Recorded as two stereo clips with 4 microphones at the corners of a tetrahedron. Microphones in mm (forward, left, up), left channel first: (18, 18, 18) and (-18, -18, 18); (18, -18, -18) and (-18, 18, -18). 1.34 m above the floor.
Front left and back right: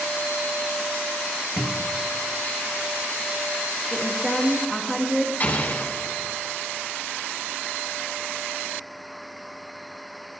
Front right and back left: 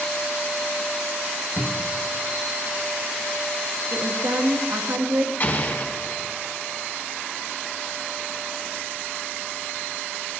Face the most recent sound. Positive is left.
turn(degrees=0)